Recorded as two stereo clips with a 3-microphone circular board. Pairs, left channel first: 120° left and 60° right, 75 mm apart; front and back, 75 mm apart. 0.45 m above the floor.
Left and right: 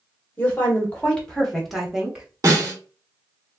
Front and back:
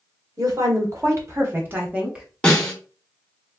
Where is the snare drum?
75° right, 1.6 m.